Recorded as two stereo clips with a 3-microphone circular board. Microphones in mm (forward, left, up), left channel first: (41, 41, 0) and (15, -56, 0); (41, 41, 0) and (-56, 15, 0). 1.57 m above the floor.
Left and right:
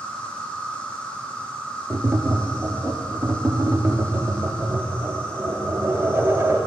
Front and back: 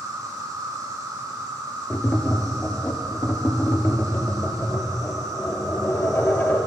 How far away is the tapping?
About 0.5 m.